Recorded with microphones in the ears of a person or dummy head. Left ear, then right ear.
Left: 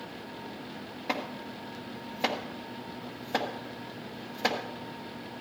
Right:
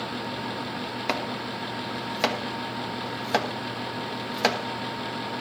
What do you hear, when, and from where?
1.1 s chopping: 60° right (ahead or behind), 1.2 m